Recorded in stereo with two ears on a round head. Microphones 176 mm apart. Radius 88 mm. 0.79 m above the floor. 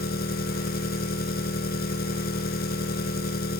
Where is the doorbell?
I don't hear a doorbell.